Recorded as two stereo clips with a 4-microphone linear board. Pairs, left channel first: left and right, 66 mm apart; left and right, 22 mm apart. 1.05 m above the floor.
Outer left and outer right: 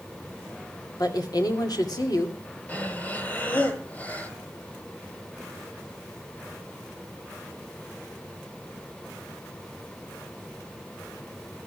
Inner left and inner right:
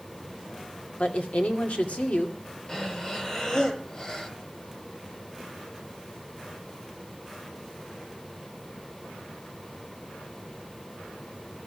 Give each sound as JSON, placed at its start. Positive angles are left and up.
{"t": 1.0, "sound": "a woman speaking", "side_deg": 75, "distance_m": 2.5}
{"t": 2.7, "sound": "breathing", "side_deg": 25, "distance_m": 1.9}